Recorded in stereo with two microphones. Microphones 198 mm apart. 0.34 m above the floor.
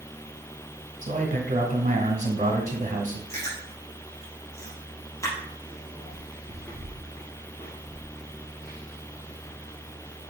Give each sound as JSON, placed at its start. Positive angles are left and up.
{"t": 1.0, "sound": "a man speaking", "side_deg": -40, "distance_m": 1.9}
{"t": 3.3, "sound": "chewing", "side_deg": 15, "distance_m": 3.5}